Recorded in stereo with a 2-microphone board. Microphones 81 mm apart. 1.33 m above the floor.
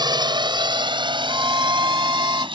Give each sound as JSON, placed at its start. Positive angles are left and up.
{"t": 0.0, "sound": "a drone", "side_deg": -60}
{"t": 1.3, "sound": "a violin", "side_deg": -45}